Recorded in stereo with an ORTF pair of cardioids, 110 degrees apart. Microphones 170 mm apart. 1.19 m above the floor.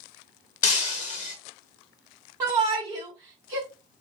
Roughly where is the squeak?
No squeak in this recording.